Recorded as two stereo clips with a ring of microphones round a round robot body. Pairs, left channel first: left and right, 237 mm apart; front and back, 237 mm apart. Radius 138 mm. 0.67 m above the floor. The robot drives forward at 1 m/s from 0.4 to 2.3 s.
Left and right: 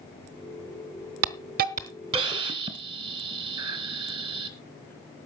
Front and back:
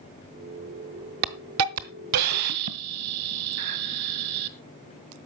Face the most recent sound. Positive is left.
turn(degrees=-160)